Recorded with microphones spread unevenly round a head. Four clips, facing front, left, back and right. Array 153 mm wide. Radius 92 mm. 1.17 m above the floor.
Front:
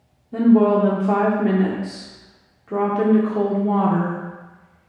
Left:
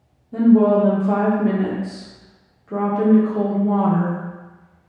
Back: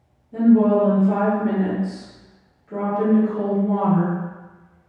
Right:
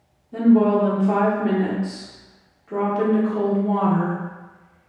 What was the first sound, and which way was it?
A woman speaking, 5° right.